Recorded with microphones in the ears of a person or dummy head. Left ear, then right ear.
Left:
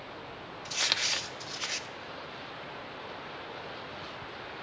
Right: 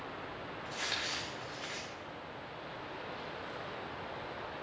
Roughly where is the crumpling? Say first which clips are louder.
Left 8 dB; left.